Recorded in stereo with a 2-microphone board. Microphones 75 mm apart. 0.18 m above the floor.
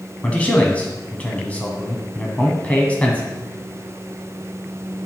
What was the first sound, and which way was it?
A man speaking, 20° left (ahead or behind).